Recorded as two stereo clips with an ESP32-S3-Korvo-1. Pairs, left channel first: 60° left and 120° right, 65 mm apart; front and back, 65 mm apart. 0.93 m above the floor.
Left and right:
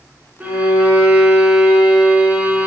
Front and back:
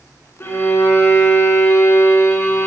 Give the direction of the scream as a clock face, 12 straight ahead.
No scream in this recording.